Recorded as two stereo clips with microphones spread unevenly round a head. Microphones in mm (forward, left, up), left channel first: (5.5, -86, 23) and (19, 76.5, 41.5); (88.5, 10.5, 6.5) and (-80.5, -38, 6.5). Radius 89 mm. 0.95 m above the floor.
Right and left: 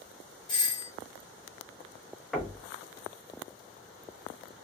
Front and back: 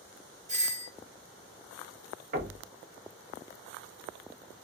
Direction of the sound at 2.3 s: Straight behind.